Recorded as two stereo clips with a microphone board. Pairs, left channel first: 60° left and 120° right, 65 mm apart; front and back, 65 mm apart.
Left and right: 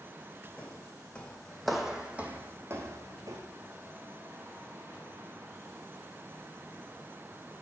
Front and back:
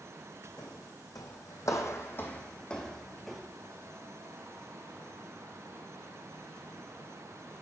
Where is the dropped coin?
I don't hear a dropped coin.